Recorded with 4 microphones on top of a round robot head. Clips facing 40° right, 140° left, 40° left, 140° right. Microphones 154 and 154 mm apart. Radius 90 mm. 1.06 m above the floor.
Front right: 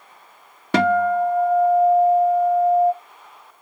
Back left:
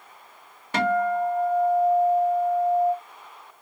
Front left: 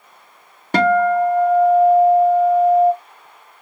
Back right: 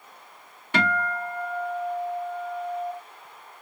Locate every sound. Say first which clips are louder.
0.7 s a guitar: front right 5 dB, front left 13 dB; 10° right, 1.0 m